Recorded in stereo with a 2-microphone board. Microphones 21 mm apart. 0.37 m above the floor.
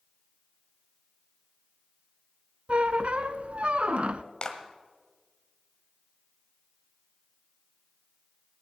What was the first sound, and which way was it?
A squeak, 60° right (ahead or behind).